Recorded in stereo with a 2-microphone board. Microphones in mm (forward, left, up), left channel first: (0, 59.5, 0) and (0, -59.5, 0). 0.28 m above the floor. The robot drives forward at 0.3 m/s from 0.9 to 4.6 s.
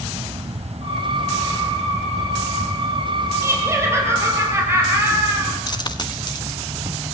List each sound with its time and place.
0.0 s an insect: 60° right (ahead or behind), 1.0 m; by 7.2 s 40° right (ahead or behind), 1.4 m
3.4 s laughter: 20° right (ahead or behind), 7 m
5.7 s a dropped coin: 35° left (ahead or behind), 1.4 m